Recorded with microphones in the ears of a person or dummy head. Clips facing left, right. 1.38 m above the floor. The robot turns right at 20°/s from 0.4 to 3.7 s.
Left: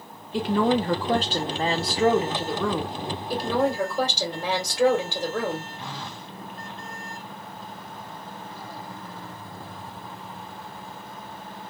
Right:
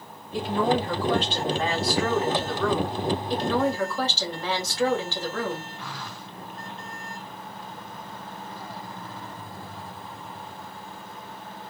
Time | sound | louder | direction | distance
0.3 | a woman speaking | left 2 dB | 125° left | 1.0 m
3.3 | a woman speaking | left 3 dB | 5° left (ahead or behind) | 1.7 m
5.8 | a phone buzzing | left 1 dB | 25° left (ahead or behind) | 0.6 m